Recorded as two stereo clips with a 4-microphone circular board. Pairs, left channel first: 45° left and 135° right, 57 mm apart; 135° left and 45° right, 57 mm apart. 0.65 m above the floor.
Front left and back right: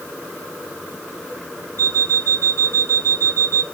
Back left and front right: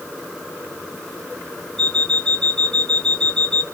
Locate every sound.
1.8 s an alarm clock: 140° right, 1.0 m